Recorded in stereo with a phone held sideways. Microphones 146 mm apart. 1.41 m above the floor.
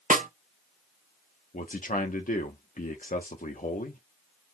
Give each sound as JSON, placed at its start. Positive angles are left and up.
{"t": 0.1, "sound": "a snare drum", "side_deg": -65, "distance_m": 0.6}
{"t": 1.5, "sound": "a man speaking", "side_deg": 65, "distance_m": 0.8}